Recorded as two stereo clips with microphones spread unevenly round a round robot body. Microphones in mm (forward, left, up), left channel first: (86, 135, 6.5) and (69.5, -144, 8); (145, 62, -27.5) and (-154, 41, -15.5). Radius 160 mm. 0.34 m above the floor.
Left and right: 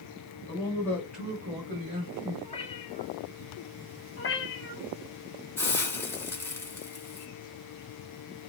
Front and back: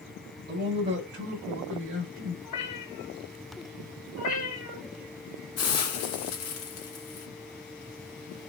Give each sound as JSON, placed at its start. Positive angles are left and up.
{"t": 0.5, "sound": "a man speaking", "azimuth_deg": 145, "distance_m": 1.3}
{"t": 2.4, "sound": "a cat meowing", "azimuth_deg": 20, "distance_m": 2.0}
{"t": 4.2, "sound": "a cat meowing", "azimuth_deg": 40, "distance_m": 1.8}
{"t": 5.6, "sound": "a hiss", "azimuth_deg": 5, "distance_m": 2.0}